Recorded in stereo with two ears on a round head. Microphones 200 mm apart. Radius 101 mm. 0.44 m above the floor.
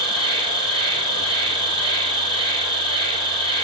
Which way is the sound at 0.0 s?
25° right (ahead or behind).